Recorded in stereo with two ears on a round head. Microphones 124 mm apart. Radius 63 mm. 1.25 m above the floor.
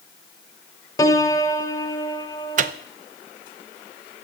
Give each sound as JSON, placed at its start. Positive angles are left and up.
{"t": 1.0, "sound": "a piano", "side_deg": 25, "distance_m": 0.9}
{"t": 2.6, "sound": "a microwave", "side_deg": -60, "distance_m": 0.5}